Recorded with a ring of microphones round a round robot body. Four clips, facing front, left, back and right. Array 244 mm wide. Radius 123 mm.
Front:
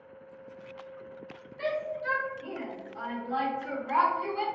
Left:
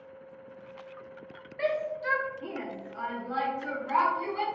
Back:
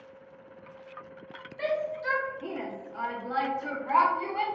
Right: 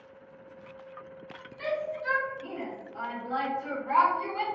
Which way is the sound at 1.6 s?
120° left.